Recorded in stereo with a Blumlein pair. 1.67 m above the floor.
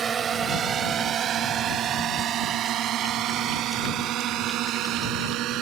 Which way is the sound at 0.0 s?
20° right.